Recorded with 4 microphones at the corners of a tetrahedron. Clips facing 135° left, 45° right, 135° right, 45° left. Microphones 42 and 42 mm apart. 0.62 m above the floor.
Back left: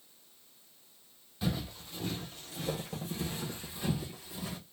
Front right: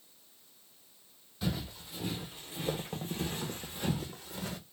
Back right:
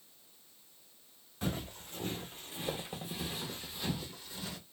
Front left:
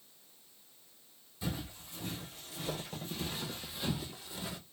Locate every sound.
1.4 s footsteps: 140° right, 1.0 m; by 4.6 s 20° right, 1.3 m